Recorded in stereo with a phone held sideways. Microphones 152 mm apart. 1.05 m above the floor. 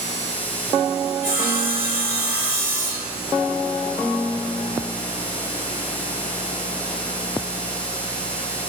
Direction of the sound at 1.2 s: 85° right.